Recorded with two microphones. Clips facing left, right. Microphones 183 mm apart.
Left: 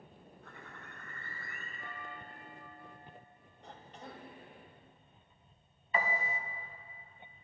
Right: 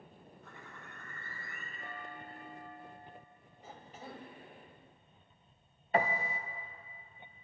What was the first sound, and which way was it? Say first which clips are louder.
A bird: left 1 dB; 60° left (ahead or behind).